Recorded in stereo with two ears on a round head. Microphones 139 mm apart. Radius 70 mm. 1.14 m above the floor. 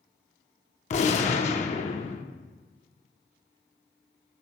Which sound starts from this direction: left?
A gunshot, at 0.9 s.